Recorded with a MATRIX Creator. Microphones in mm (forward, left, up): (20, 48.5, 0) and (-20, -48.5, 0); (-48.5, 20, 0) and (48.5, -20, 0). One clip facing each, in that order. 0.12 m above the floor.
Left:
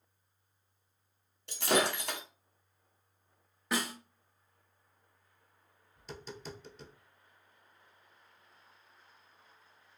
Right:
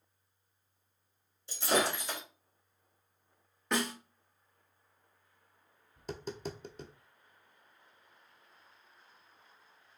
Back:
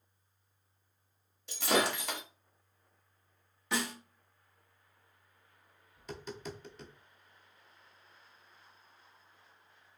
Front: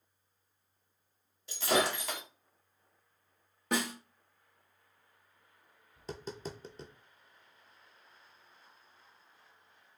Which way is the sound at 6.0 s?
80° right.